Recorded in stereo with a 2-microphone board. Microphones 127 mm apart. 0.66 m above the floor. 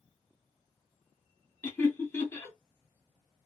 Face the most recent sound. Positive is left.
turn(degrees=20)  # may be behind; listen again after turning